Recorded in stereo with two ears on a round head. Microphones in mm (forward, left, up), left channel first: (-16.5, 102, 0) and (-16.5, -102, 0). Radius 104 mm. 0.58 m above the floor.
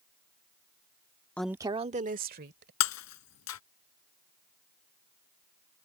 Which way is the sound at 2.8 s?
70° left (ahead or behind).